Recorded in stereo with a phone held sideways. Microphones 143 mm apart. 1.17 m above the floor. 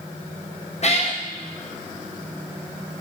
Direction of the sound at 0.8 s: 50° left (ahead or behind).